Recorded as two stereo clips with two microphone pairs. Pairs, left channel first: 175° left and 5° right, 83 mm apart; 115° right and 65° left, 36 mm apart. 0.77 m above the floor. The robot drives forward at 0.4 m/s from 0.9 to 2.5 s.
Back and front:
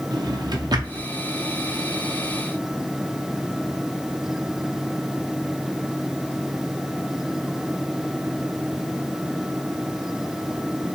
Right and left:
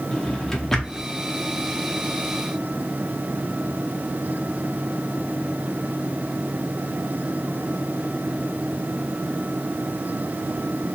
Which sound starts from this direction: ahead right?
A drawer, at 0.1 s.